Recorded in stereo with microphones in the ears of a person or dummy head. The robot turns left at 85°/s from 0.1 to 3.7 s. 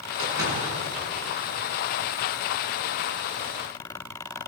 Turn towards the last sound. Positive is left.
turn(degrees=-5)